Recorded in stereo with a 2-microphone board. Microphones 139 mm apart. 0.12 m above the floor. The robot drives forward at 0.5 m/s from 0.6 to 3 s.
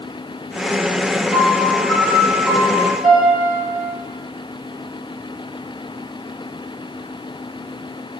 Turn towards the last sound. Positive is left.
turn(degrees=5)  # may be behind; listen again after turning